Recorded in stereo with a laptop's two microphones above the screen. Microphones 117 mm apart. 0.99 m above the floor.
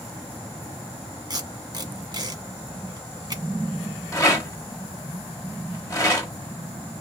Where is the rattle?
25° left (ahead or behind), 1.3 m.